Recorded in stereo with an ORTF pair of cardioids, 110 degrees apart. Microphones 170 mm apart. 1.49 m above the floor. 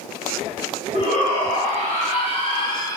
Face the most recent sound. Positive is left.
turn(degrees=20)